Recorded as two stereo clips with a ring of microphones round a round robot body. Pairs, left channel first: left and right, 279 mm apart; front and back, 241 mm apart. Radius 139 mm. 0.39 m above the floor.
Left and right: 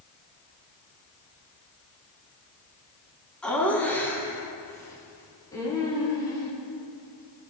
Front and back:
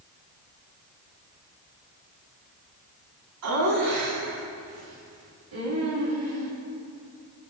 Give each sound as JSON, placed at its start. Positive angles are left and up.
{"t": 3.4, "sound": "laughter", "azimuth_deg": 175, "distance_m": 3.5}